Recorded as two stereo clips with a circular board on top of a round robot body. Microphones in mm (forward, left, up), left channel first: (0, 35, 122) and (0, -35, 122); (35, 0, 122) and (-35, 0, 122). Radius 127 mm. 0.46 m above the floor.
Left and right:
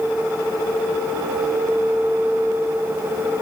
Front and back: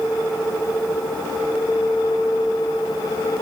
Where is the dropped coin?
I don't hear a dropped coin.